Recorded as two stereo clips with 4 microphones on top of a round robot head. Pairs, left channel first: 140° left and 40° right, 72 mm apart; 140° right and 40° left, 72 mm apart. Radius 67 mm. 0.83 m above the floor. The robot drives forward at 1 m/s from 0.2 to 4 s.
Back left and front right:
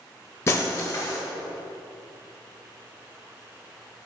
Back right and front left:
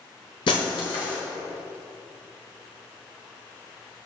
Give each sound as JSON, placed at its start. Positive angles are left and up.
{"t": 0.5, "sound": "breaking glass", "azimuth_deg": -160, "distance_m": 1.1}